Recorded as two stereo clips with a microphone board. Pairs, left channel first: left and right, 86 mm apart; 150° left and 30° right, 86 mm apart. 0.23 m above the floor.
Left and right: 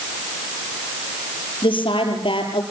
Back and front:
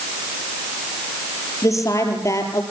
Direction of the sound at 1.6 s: 100° left.